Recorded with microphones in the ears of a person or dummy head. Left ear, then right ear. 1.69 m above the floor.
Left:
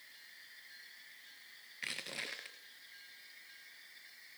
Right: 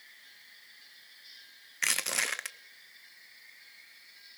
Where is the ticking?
I don't hear ticking.